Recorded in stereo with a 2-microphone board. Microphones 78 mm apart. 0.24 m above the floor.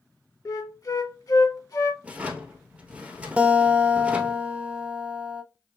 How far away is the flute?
About 0.8 m.